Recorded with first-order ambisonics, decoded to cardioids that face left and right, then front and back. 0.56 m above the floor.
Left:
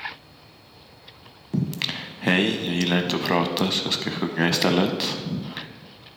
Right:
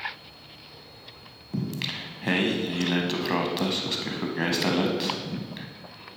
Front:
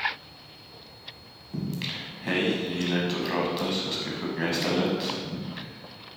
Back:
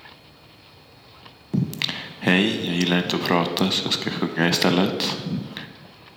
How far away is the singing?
About 0.5 m.